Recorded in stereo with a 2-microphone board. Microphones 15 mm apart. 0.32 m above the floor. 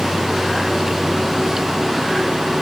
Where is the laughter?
I don't hear laughter.